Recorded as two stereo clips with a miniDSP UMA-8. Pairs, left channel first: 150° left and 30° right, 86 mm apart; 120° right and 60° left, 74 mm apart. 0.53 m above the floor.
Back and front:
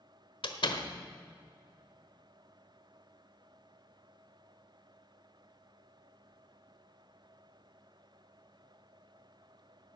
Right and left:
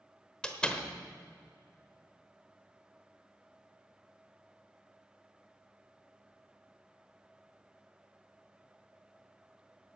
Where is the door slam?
160° left, 1.2 m.